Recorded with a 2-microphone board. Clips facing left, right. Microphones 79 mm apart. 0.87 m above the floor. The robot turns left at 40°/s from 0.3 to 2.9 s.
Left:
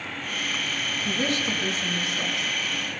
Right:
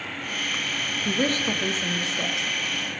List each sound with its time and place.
1.1 s a woman speaking: 95° right, 0.7 m; by 2.5 s 155° right, 0.7 m